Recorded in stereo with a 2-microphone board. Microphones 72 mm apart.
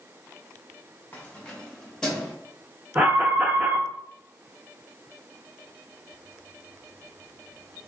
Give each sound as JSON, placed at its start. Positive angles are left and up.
{"t": 1.1, "sound": "keys jangling", "side_deg": 25, "distance_m": 0.7}
{"t": 3.0, "sound": "an alarm", "side_deg": -15, "distance_m": 1.2}